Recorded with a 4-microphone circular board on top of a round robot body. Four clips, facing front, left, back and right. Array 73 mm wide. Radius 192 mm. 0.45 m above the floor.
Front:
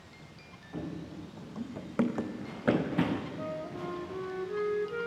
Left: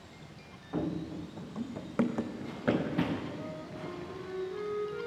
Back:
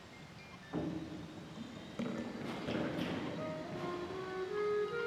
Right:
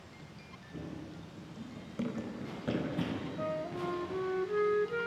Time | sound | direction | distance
0.7 | running footsteps | 100° left | 1.6 m
3.4 | a flute | 80° right | 1.6 m